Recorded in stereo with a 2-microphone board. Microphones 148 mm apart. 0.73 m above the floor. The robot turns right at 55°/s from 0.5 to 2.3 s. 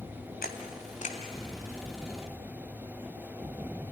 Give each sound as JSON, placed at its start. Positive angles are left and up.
{"t": 0.4, "sound": "a camera shutter", "side_deg": 80, "distance_m": 1.8}